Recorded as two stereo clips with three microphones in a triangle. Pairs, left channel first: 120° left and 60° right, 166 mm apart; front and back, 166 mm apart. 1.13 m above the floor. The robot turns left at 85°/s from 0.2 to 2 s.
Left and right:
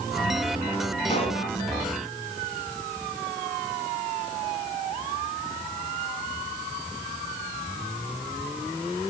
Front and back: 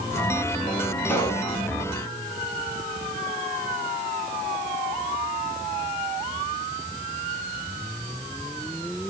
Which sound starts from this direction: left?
A pop, at 1.1 s.